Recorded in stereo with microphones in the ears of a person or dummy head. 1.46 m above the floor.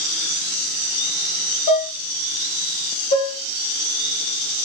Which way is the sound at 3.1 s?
30° left (ahead or behind).